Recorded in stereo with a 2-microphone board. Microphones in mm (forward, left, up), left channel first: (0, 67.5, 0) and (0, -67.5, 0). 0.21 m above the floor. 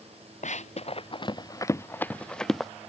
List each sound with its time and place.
0.4 s running footsteps: 60° left (ahead or behind); by 2.7 s centre (ahead or behind)